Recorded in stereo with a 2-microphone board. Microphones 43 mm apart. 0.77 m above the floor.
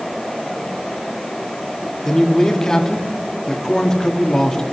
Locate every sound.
2.0 s a man speaking: 15° left (ahead or behind), 1.2 m